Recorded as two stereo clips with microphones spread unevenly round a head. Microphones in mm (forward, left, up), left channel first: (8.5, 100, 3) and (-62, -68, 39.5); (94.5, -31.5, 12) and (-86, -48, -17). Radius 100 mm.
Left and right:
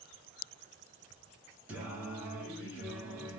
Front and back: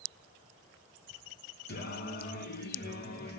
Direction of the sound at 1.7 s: 30° right.